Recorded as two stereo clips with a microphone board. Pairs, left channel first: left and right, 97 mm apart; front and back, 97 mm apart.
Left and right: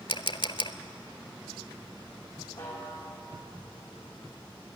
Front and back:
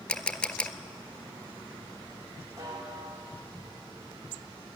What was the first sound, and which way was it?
A camera shutter, 75° left.